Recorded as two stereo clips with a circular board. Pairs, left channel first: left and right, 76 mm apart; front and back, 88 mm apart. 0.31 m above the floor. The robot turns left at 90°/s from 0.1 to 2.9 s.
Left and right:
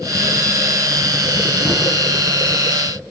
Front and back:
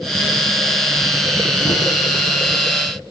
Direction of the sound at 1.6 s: Straight ahead.